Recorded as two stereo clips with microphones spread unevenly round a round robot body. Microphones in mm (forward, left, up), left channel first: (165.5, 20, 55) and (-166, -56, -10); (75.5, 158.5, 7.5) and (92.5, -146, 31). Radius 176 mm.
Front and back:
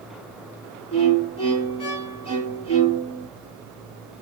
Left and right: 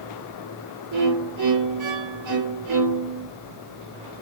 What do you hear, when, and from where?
0.9 s a violin: 60° right, 5.5 m